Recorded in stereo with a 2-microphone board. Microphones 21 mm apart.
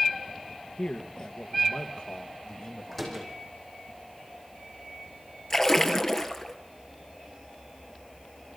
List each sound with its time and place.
0.8 s a man speaking: 50° left (ahead or behind), 2.5 m; by 3.9 s 70° left (ahead or behind), 4 m
2.9 s a door slam: 5° left (ahead or behind), 5.5 m
5.5 s a splash: 25° left (ahead or behind), 1.8 m